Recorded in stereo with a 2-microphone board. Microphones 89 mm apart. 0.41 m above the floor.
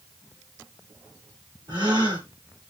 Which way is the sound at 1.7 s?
60° right (ahead or behind).